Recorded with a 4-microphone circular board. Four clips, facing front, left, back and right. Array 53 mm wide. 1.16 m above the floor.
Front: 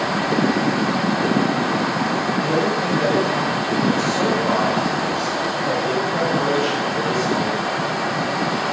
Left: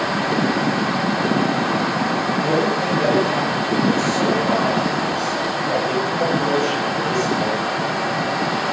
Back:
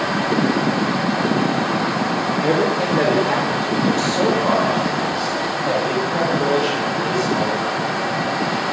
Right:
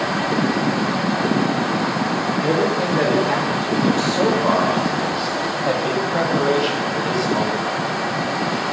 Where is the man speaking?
150° right, 3.5 m; by 7.6 s 85° right, 7.5 m.